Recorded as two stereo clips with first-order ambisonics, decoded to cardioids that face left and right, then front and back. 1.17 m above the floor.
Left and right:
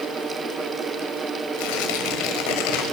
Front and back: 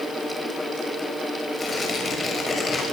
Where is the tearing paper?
75° left, 6 m.